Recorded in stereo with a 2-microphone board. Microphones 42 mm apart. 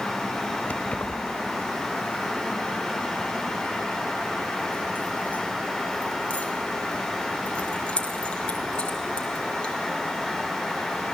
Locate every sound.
0.7 s keys jangling: 35° left (ahead or behind), 1.2 m; by 9.7 s 25° left (ahead or behind), 4.5 m